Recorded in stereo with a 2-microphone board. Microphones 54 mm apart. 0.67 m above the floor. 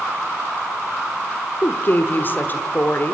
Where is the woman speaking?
40° left (ahead or behind), 1.5 m.